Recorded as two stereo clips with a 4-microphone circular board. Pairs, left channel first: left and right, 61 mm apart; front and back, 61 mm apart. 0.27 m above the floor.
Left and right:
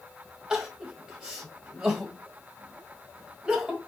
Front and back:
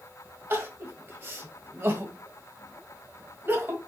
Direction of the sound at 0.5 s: 155° right.